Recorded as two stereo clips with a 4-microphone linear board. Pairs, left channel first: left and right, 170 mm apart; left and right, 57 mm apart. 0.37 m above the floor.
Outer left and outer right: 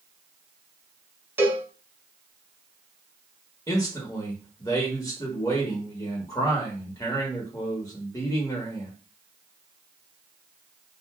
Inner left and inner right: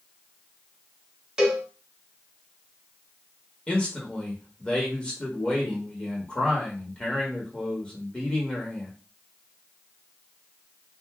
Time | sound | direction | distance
1.4 | a cowbell | 15° right (ahead or behind) | 0.7 m
3.7 | a man speaking | 20° left (ahead or behind) | 1.0 m